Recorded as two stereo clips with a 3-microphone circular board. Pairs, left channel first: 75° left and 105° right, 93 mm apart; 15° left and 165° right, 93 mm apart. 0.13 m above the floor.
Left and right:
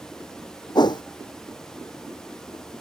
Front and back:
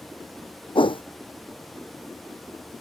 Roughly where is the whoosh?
Ahead left.